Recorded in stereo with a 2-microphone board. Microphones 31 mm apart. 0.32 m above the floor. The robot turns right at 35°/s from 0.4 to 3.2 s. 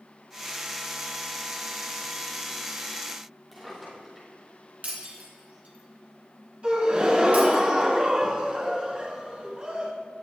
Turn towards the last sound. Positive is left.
turn(degrees=-35)  # may be behind; listen again after turning